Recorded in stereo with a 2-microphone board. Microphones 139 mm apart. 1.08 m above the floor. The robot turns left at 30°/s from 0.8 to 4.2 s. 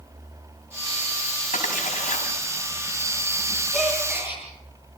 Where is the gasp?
Centre (ahead or behind), 8.5 m; by 4.4 s 15° right (ahead or behind), 8.5 m.